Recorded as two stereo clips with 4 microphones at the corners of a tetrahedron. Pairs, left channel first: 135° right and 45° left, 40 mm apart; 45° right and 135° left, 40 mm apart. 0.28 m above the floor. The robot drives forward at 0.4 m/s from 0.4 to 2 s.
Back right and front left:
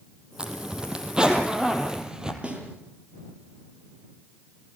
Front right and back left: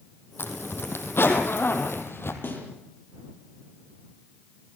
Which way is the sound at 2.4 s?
15° right.